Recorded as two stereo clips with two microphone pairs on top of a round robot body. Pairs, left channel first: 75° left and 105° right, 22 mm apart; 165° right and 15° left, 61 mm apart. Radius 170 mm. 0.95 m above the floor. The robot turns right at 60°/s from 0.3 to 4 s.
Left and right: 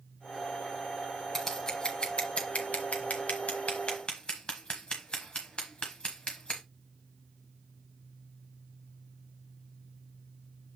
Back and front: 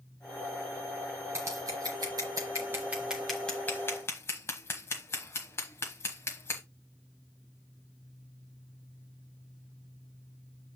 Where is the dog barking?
I don't hear a dog barking.